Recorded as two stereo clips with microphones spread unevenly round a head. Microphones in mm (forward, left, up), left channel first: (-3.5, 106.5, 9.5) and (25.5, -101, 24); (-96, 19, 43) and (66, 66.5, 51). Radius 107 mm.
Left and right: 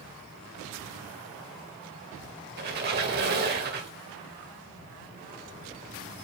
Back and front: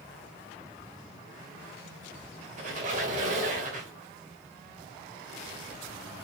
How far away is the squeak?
About 1.8 m.